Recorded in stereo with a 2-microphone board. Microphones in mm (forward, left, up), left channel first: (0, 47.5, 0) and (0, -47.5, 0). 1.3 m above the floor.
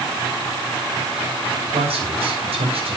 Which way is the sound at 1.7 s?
85° right.